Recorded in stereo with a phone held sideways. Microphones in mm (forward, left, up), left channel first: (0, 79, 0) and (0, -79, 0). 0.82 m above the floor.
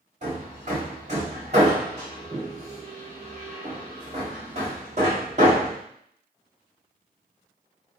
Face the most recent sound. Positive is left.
turn(degrees=-45)  # may be behind; listen again after turning